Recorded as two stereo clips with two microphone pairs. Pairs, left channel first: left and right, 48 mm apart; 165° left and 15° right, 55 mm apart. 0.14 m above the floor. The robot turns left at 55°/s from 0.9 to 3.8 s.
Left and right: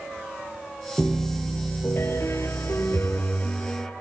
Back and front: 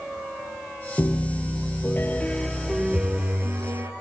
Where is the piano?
170° left, 2.5 m; by 3.9 s 15° left, 2.5 m.